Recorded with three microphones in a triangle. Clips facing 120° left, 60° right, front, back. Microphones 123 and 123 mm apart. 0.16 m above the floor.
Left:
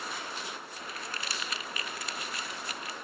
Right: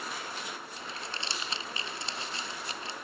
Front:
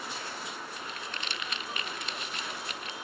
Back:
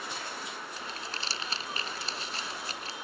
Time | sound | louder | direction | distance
0.8 | crumpling | even, even | 125° right | ?